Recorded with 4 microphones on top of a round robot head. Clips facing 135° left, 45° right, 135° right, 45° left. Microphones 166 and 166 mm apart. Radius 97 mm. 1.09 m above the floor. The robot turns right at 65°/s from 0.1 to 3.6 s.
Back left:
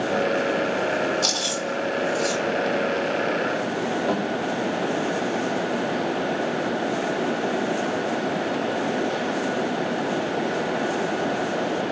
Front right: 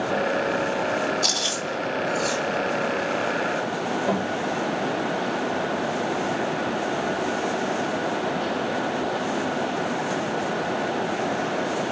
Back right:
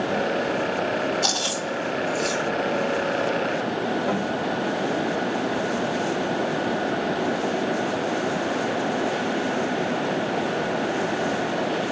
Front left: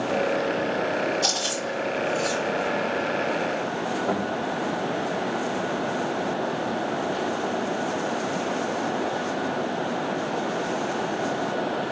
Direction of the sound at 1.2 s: 110° left.